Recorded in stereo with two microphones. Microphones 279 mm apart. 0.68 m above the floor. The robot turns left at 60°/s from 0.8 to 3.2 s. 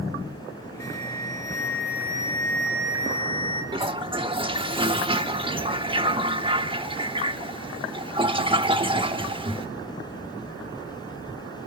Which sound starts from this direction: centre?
A toilet flushing, at 3.7 s.